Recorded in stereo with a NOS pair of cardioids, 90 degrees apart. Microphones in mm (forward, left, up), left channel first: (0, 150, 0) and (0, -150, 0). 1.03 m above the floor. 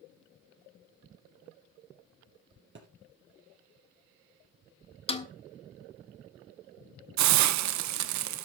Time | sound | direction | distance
2.8 | a thud | 40° right | 3 m
5.1 | a snare drum | 20° left | 1.2 m
7.2 | a hiss | 65° right | 0.6 m